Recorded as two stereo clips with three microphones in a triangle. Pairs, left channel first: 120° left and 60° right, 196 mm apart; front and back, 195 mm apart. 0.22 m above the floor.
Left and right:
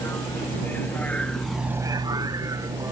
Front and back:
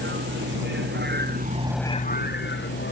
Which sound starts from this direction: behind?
A vehicle, at 0.0 s.